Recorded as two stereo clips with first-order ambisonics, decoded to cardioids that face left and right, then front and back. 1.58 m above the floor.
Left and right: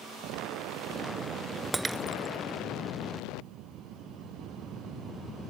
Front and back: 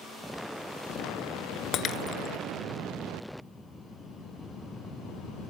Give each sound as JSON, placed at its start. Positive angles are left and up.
{"t": 1.7, "sound": "breaking glass", "azimuth_deg": -20}